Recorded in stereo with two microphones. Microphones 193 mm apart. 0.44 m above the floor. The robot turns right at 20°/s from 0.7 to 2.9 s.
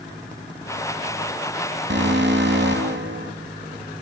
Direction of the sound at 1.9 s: 70° right (ahead or behind).